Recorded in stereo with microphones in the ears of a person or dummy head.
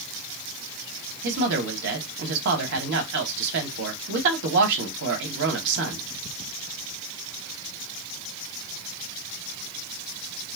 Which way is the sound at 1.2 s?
65° right (ahead or behind).